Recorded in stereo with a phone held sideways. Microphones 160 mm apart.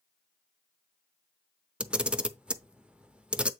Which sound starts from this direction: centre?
A camera shutter, at 1.8 s.